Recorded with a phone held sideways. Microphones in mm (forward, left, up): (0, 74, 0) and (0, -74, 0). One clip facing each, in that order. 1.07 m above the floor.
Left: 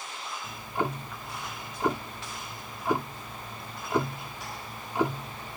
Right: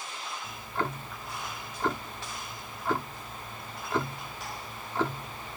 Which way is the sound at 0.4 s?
15° left (ahead or behind).